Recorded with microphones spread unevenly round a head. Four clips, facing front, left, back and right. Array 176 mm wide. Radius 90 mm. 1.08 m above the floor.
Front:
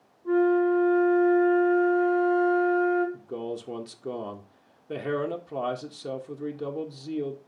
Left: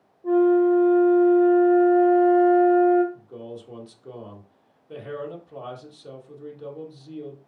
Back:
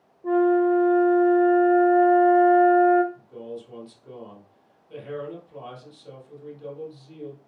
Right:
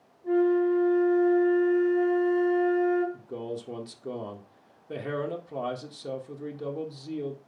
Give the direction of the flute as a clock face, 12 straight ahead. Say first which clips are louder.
Left 5 dB, back 2 dB; 7 o'clock.